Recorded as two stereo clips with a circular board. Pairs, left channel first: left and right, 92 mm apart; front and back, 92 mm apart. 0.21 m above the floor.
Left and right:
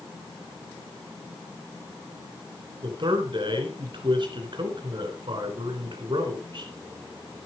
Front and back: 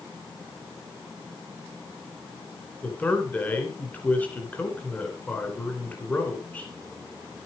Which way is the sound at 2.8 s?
70° right.